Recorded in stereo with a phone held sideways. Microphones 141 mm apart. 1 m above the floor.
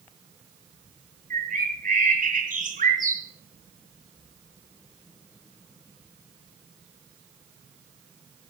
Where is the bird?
75° right (ahead or behind), 3 m.